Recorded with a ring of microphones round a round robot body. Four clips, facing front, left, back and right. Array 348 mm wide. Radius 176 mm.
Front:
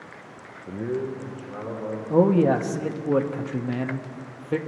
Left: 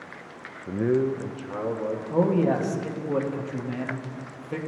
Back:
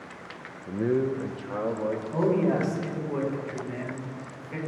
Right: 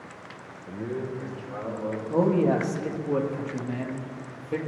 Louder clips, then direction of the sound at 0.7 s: Left 9 dB, back 3 dB; 70° left.